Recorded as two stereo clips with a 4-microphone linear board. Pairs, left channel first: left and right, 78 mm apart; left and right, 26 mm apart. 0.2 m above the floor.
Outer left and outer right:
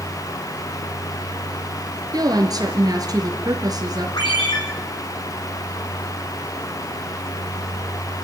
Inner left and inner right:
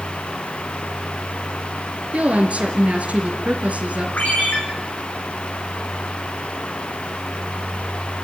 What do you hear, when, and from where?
2.1 s a woman speaking: 55° right (ahead or behind), 3.5 m
4.2 s a ringtone: 70° left (ahead or behind), 5.5 m